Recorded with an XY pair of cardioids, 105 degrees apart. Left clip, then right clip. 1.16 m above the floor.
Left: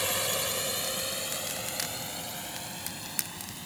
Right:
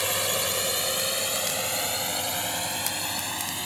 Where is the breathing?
I don't hear breathing.